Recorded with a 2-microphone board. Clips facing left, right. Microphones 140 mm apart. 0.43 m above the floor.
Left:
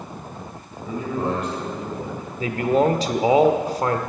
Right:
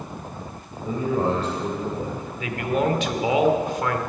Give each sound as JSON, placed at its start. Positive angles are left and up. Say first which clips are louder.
{"t": 0.8, "sound": "a man speaking", "louder": "right 2 dB", "side_deg": -35, "distance_m": 2.5}
{"t": 2.4, "sound": "a man speaking", "louder": "left 5 dB", "side_deg": 35, "distance_m": 0.9}